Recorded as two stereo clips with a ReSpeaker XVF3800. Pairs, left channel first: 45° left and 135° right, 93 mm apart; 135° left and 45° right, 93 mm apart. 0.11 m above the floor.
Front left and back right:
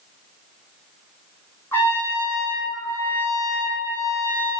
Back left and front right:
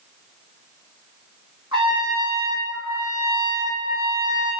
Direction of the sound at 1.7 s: 20° right.